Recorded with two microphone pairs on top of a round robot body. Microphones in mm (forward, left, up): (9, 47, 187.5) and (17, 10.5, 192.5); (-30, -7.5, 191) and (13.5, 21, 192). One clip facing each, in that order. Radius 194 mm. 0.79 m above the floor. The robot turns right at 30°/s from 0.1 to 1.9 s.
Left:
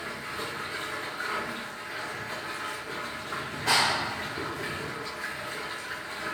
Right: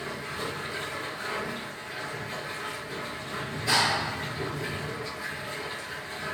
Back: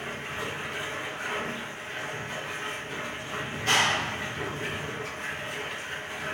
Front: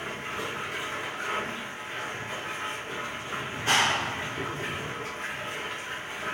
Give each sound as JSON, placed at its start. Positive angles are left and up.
{"t": 0.0, "sound": "running water", "azimuth_deg": 30, "distance_m": 1.2}
{"t": 3.5, "sound": "a clap", "azimuth_deg": 100, "distance_m": 1.5}